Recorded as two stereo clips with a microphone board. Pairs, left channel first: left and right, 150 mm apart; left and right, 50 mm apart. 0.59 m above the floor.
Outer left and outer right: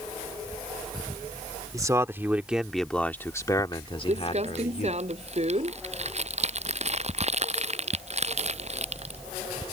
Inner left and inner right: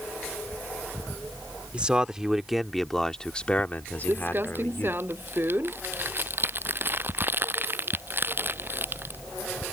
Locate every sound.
1.7 s a man speaking: 25° right (ahead or behind); by 5.0 s 55° left (ahead or behind)
4.1 s crumpling: 45° right (ahead or behind)